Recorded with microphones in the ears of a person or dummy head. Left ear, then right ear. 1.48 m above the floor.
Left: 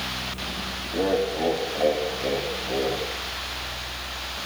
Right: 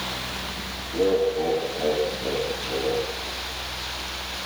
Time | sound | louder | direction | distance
0.9 | laughter | right 3 dB | 55° left (ahead or behind) | 3.5 m